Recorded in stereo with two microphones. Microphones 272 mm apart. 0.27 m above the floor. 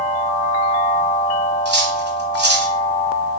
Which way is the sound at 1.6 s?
40° right (ahead or behind).